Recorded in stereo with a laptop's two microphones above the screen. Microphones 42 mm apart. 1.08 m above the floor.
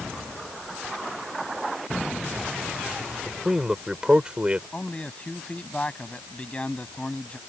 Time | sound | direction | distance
3.3 | a man speaking | 10° right (ahead or behind) | ?
4.7 | a man speaking | 25° left (ahead or behind) | ?